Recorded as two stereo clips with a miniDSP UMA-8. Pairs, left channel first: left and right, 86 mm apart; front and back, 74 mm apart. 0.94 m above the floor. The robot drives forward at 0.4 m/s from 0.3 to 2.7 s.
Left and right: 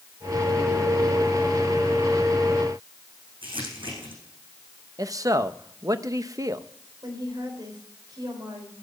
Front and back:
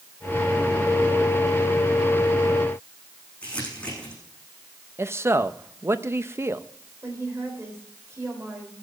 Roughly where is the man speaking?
Behind right.